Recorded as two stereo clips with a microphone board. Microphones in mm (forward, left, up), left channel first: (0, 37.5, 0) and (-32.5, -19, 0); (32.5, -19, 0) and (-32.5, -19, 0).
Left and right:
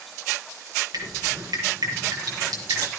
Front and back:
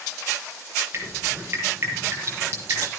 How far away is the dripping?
About 5.5 m.